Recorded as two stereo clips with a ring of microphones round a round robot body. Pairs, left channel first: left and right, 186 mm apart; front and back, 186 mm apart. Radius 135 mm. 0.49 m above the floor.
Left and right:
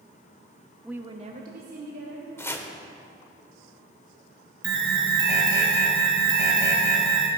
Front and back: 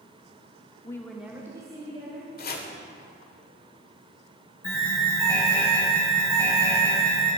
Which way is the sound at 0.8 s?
Straight ahead.